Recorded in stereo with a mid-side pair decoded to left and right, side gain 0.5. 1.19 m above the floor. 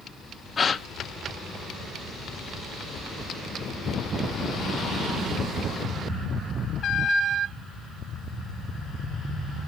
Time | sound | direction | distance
0.6 | a gasp | 35° left | 0.8 m